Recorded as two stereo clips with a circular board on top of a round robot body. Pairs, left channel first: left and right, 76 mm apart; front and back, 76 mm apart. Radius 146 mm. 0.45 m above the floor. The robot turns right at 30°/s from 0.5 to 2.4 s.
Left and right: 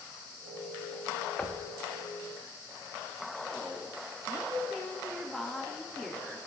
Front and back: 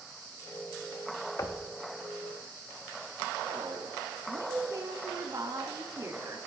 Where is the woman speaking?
175° left, 1.5 m.